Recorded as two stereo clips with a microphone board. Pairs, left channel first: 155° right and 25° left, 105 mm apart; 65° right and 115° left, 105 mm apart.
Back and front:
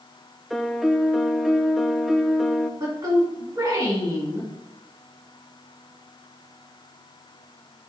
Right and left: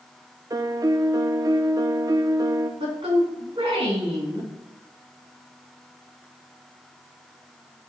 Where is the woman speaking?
75° left, 3 m.